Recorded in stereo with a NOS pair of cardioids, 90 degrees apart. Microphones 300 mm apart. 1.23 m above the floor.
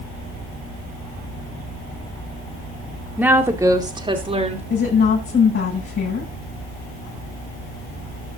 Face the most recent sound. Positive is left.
turn(degrees=45)